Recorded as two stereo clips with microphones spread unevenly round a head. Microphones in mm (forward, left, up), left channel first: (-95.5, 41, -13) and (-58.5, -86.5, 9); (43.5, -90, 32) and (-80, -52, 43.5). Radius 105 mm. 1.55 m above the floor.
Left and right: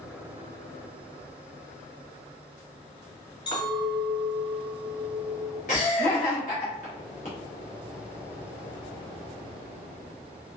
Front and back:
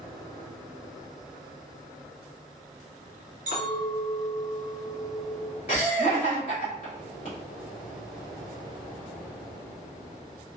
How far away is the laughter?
About 0.9 m.